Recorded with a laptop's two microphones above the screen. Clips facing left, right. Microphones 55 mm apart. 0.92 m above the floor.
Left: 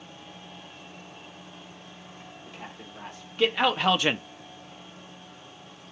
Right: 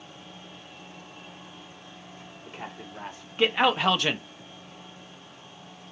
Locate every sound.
2.5 s a man speaking: 35° right (ahead or behind), 2.5 m; by 4.2 s 30° left (ahead or behind), 0.6 m